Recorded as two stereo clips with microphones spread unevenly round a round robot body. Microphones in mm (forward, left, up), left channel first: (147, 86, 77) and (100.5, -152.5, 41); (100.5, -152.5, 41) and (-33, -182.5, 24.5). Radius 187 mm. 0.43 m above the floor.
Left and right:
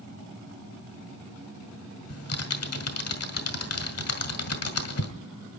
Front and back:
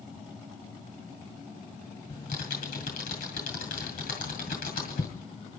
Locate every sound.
2.1 s typing on a keyboard: 55° left, 2 m